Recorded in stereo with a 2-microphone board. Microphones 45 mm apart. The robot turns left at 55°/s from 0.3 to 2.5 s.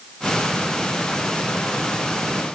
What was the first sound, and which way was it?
Only background noise.